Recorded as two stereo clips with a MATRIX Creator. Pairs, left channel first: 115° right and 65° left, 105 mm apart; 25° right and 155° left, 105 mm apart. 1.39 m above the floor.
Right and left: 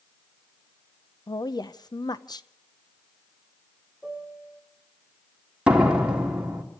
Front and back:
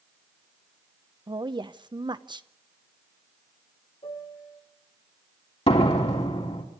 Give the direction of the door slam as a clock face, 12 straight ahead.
12 o'clock.